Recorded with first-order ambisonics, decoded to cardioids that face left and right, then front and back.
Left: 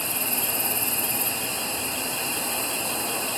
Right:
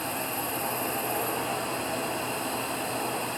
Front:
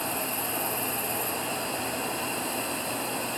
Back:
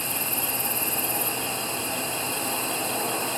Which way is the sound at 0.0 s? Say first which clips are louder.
Left 2 dB, back 1 dB; 125° left.